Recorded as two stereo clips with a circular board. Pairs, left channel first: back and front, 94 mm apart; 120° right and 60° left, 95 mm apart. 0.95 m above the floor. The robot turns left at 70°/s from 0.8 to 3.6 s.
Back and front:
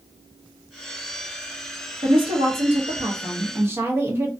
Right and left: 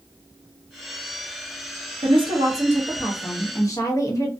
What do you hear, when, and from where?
2.0 s a woman speaking: 45° left, 0.9 m; by 4.3 s 65° right, 0.9 m